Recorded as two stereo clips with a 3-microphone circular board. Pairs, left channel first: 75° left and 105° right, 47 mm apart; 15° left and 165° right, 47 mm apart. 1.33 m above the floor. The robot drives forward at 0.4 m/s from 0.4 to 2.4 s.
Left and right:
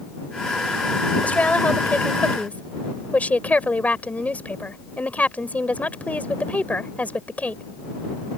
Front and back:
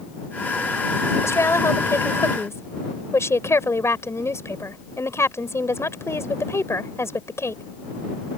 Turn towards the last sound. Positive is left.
turn(degrees=15)